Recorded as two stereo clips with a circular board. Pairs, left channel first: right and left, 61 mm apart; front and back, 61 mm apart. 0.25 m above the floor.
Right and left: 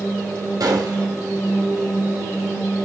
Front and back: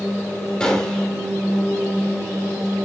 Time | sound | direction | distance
0.6 | a gunshot | 75° left | 2.0 m